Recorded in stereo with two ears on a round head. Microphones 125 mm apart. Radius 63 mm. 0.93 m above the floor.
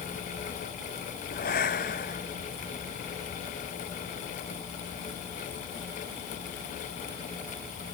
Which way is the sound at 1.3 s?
65° left (ahead or behind).